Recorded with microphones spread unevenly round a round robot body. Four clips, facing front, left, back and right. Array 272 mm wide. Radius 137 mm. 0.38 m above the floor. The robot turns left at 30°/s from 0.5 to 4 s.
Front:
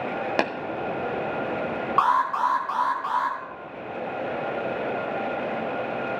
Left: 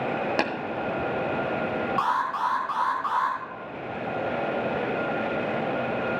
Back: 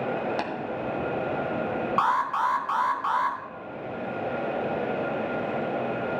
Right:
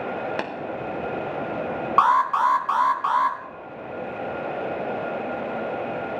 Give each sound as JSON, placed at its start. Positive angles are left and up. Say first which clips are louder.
{"t": 0.4, "sound": "tapping", "louder": "left 3 dB, front 6 dB", "azimuth_deg": 10, "distance_m": 1.3}
{"t": 2.0, "sound": "an alarm", "louder": "right 9 dB, front 4 dB", "azimuth_deg": -65, "distance_m": 2.5}